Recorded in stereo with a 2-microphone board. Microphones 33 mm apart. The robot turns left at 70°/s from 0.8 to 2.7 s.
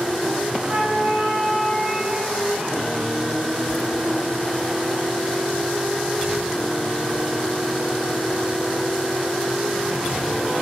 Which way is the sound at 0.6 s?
95° right.